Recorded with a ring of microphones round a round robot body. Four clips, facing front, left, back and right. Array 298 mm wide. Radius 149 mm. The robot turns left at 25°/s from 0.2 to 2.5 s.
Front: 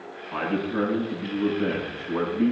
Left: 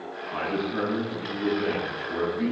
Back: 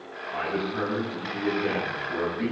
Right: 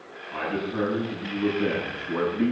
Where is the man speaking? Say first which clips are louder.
Even, front 3 dB; 5° left, 10 m; by 2.5 s 50° right, 10 m.